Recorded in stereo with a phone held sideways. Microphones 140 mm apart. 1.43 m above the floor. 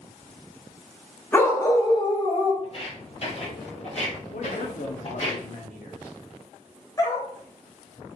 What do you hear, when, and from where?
1.3 s a dog barking: 15° left (ahead or behind), 1.0 m; by 2.5 s 35° left (ahead or behind), 1.1 m
2.6 s footsteps: 45° left (ahead or behind), 1.9 m; by 5.3 s 50° left (ahead or behind), 3 m
4.3 s a man speaking: 65° left (ahead or behind), 0.8 m
7.0 s a dog barking: 25° left (ahead or behind), 1.2 m